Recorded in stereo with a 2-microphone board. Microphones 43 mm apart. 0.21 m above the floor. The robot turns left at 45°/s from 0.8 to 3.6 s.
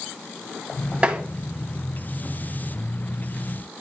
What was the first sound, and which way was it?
Tapping, 25° right (ahead or behind).